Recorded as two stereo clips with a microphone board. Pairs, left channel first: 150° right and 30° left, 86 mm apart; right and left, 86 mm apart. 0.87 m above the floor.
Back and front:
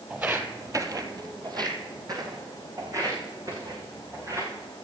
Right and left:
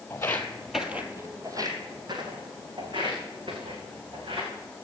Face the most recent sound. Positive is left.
turn(degrees=80)